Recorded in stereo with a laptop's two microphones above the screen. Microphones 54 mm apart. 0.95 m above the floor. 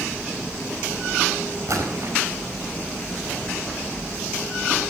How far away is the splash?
About 5 m.